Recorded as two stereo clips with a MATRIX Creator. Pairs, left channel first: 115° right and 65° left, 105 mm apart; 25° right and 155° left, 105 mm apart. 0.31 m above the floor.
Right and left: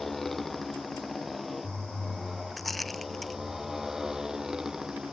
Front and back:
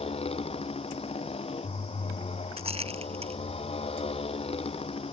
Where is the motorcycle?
25° right; by 5.1 s 15° right.